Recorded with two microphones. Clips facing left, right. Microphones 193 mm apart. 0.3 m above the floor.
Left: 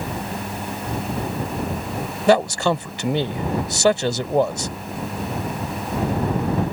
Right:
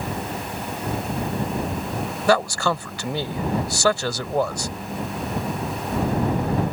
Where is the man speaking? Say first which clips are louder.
Left 4 dB; 20° left (ahead or behind).